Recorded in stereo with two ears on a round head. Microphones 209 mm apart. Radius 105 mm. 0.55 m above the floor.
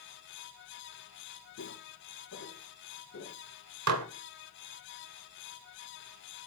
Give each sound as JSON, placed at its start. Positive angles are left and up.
{"t": 1.6, "sound": "footsteps", "side_deg": 75, "distance_m": 4.5}
{"t": 3.9, "sound": "dishes clattering", "side_deg": -75, "distance_m": 1.1}